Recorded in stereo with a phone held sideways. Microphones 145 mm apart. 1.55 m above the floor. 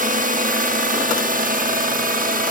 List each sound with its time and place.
0.0 s a drone: 70° right (ahead or behind); by 2.5 s 75° right (ahead or behind)